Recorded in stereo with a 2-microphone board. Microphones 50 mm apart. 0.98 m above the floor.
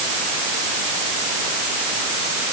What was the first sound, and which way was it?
Only background noise.